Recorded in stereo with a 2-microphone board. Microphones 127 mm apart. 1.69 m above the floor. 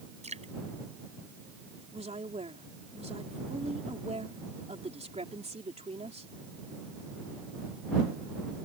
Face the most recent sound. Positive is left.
turn(degrees=-60)  # may be behind; listen again after turning